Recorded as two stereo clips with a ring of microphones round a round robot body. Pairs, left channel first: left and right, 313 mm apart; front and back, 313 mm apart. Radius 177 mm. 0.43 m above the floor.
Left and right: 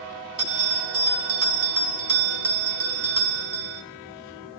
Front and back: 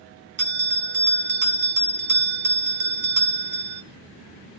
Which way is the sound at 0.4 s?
130° right.